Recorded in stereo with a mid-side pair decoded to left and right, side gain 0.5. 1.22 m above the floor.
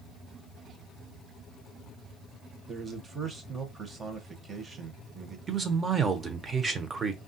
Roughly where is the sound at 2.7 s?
Ahead right.